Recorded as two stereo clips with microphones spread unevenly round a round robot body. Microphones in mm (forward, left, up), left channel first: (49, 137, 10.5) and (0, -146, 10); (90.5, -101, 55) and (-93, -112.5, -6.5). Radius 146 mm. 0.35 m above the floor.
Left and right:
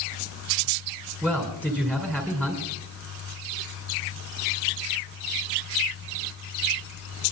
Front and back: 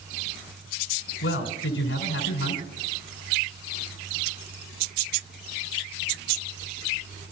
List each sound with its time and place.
1.2 s a man speaking: 5° right, 5 m